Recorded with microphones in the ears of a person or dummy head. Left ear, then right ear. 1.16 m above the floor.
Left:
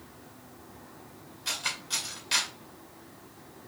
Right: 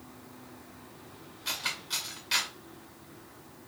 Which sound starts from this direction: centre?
Cutlery clinking, at 1.4 s.